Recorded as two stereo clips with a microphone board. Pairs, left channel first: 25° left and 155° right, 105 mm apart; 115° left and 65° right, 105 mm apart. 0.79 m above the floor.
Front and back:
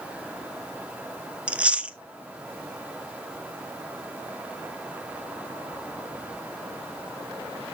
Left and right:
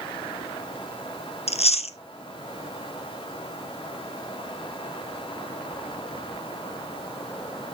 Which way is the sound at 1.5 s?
125° left.